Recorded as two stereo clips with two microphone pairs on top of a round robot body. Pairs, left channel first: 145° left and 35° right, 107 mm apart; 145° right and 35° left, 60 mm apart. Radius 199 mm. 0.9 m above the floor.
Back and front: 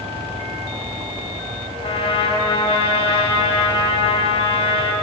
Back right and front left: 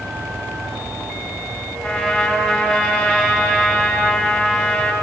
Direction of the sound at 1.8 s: 150° left.